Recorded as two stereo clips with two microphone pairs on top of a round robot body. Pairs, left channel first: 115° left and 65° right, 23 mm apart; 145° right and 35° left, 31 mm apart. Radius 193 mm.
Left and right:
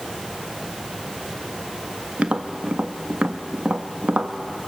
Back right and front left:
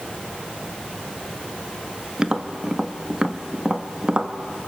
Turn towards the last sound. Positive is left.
turn(degrees=-35)